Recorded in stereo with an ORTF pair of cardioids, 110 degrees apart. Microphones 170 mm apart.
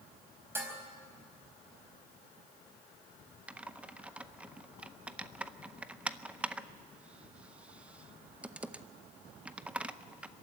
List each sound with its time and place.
0.6 s dishes clattering: 15° right, 5 m
3.5 s typing on a keyboard: 5° right, 0.7 m